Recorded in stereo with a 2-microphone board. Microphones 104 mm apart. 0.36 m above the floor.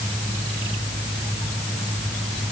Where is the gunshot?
I don't hear a gunshot.